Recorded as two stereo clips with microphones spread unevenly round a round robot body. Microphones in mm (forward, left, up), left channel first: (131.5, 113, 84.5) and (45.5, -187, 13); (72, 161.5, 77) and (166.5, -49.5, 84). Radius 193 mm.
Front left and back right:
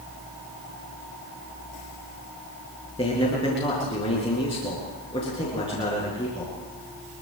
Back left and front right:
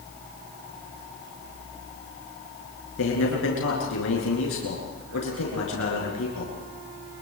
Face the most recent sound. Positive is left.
turn(degrees=150)